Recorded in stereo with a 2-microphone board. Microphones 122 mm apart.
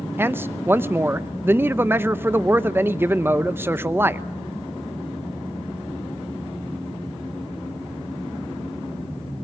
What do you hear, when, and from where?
0.2 s a man speaking: 20° right (ahead or behind), 0.7 m